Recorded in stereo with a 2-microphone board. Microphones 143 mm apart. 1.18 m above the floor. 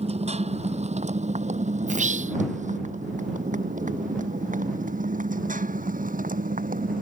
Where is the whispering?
60° right (ahead or behind).